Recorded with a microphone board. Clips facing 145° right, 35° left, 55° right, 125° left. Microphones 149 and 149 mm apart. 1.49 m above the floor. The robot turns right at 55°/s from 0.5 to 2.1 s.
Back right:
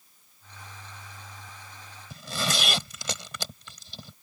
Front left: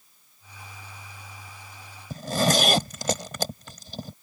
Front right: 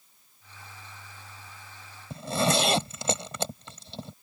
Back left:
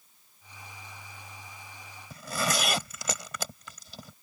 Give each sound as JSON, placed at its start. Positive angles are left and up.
{"t": 2.1, "sound": "a zipper", "azimuth_deg": 0}